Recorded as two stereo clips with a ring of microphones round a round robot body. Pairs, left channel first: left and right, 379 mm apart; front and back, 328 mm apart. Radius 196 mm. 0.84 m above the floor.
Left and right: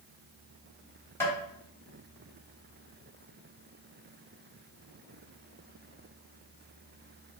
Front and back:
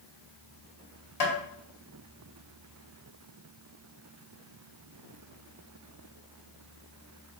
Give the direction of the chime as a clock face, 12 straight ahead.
No chime in this recording.